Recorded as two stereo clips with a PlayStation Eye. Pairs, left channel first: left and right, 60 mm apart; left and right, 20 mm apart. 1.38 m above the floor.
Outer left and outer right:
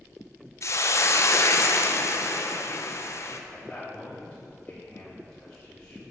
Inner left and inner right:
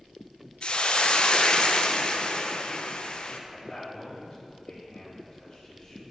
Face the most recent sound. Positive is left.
turn(degrees=20)  # may be behind; listen again after turning